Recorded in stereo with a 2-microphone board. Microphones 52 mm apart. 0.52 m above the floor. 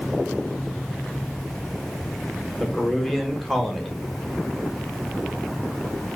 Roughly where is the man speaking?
Centre.